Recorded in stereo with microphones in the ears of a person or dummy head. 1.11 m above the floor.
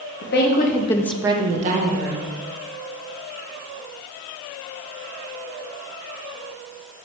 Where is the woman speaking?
50° left (ahead or behind), 1.2 m; by 2.3 s 45° right (ahead or behind), 1.5 m.